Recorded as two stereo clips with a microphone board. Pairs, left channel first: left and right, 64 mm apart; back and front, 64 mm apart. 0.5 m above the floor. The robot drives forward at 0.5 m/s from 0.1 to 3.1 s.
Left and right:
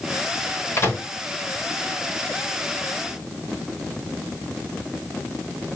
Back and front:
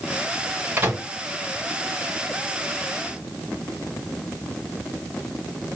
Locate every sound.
0.8 s a microwave: 45° left, 1.8 m; by 1.1 s 50° left, 1.7 m